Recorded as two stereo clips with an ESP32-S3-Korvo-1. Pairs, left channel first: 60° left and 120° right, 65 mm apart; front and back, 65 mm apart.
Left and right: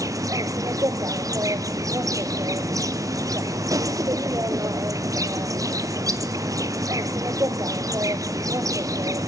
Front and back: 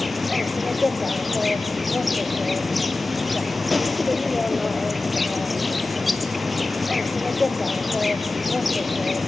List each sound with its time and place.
0.0 s an insect: 90° right, 0.9 m